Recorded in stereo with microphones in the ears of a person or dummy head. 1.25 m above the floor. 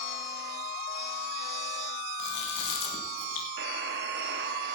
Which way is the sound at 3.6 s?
70° right (ahead or behind).